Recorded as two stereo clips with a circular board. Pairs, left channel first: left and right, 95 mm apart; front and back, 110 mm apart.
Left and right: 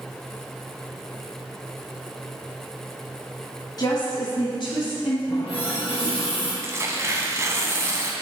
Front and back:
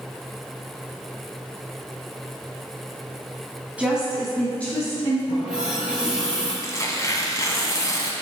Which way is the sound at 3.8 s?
105° left.